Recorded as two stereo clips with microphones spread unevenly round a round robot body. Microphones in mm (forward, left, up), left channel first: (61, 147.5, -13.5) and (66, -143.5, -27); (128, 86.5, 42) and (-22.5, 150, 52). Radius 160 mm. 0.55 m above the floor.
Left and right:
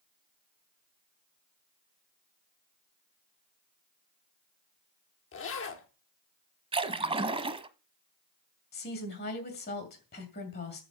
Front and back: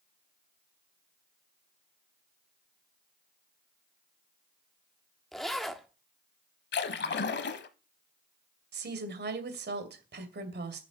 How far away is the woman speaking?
About 2.5 m.